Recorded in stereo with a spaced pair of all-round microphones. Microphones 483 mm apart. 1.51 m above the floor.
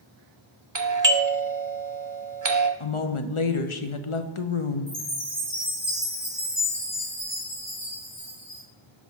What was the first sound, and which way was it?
A doorbell, 35° right (ahead or behind).